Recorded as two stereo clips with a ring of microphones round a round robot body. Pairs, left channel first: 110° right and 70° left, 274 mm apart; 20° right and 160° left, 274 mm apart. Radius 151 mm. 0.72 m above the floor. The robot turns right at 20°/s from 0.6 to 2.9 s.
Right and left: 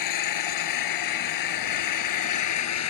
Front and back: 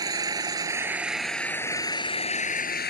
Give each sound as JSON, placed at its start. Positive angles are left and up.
{"t": 0.0, "sound": "an engine running", "azimuth_deg": -125}